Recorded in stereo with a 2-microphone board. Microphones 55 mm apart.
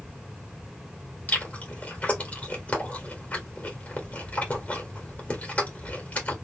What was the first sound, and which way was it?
Chewing, 25° left (ahead or behind).